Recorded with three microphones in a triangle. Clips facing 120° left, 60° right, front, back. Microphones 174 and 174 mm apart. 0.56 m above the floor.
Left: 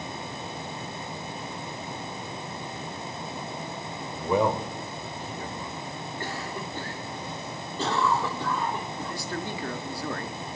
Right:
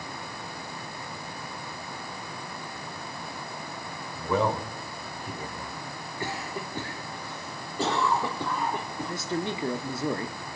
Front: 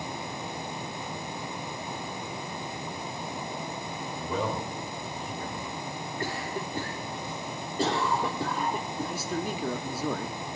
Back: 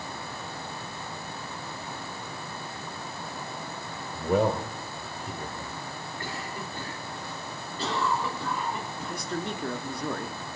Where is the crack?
I don't hear a crack.